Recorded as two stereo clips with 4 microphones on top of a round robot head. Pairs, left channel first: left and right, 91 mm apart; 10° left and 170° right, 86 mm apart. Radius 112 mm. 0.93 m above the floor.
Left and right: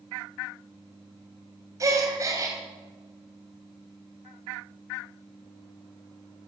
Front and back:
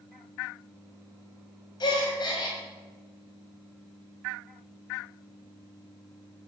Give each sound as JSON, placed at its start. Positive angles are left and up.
{"t": 1.8, "sound": "a gasp", "azimuth_deg": -35, "distance_m": 2.5}